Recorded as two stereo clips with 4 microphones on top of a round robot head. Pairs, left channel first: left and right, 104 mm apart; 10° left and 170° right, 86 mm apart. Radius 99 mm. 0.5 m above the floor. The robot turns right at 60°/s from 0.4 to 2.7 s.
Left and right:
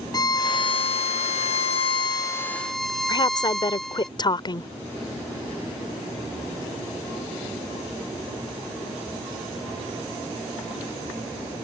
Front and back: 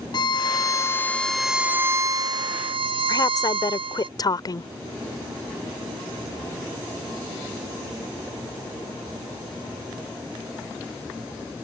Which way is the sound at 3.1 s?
50° left.